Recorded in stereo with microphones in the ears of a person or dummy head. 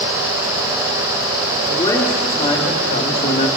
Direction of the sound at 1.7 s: 20° left (ahead or behind).